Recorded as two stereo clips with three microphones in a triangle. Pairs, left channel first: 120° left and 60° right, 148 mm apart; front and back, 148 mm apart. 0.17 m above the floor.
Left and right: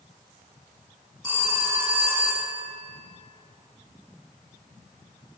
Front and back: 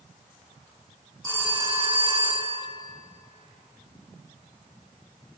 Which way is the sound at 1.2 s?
120° right.